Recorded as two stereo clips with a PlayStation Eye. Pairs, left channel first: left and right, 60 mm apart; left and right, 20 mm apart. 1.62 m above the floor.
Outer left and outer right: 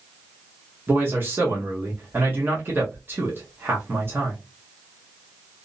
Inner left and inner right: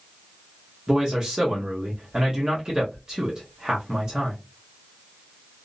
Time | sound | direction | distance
0.9 | a man speaking | 35° right (ahead or behind) | 1.0 m